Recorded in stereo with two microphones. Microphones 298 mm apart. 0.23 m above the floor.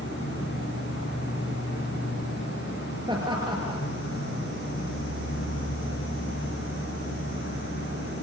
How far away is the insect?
About 6.5 m.